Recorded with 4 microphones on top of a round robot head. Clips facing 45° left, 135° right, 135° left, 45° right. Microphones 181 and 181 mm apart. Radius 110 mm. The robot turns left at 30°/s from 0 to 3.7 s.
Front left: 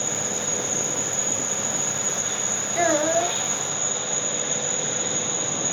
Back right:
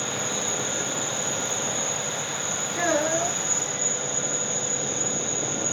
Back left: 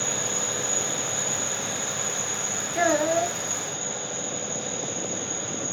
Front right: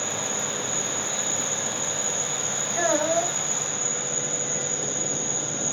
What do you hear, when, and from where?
0.0 s an insect: 80° left, 1.1 m; by 5.7 s 30° right, 1.1 m
2.8 s a child speaking: 75° left, 1.1 m; by 3.4 s 55° left, 1.1 m